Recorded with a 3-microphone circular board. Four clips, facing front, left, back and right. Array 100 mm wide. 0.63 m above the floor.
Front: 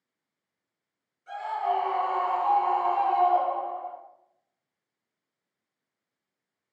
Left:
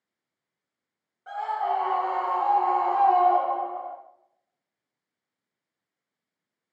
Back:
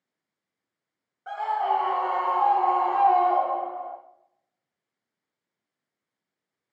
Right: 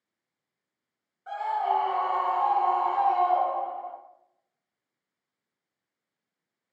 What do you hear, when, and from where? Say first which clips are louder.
1.3 s a scream: even, back 3 dB; 170° left, 2 m; by 4.0 s 120° left, 1.1 m